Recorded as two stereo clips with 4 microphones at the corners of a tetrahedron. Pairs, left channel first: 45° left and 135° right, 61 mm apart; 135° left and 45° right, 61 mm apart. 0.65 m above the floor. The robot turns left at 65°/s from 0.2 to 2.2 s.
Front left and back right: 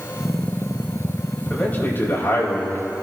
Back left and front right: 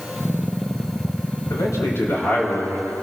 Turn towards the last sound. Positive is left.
turn(degrees=75)